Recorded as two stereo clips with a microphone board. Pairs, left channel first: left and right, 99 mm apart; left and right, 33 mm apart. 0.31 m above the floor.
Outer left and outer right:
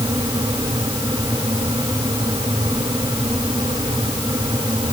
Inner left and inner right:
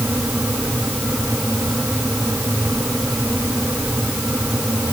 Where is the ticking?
No ticking in this recording.